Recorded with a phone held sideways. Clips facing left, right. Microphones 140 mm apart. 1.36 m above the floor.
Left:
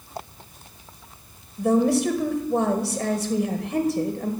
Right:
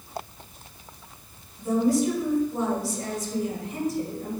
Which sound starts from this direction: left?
A woman speaking, at 1.6 s.